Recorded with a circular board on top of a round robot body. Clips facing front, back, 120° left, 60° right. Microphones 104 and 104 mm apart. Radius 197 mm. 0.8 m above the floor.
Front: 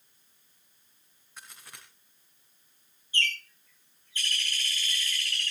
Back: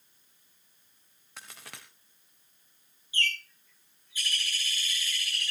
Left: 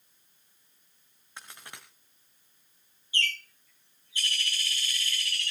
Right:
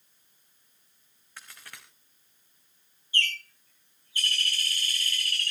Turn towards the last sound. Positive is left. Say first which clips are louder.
# front 1 dB, right 1 dB
turn(degrees=-100)